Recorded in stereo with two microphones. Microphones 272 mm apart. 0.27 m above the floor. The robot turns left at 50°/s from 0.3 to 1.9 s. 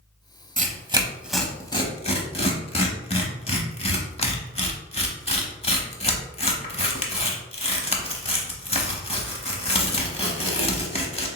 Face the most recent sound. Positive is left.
turn(degrees=20)  # may be behind; listen again after turning